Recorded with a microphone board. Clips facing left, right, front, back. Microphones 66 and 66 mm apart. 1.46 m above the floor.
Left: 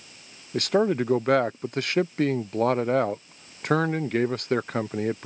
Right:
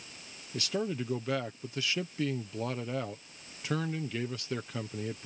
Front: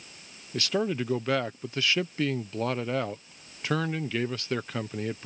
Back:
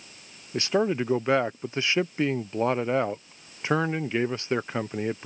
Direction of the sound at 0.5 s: 115° left.